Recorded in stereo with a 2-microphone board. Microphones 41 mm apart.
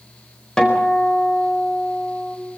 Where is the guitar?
15° left (ahead or behind), 4.5 m.